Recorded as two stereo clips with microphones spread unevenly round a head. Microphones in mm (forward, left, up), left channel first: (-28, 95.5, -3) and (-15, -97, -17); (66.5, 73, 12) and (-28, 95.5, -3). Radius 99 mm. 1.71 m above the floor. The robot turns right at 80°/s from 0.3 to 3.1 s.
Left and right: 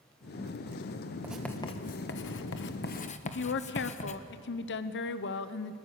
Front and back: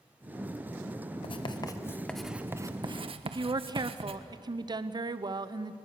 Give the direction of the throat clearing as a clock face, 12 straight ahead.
I don't hear throat clearing.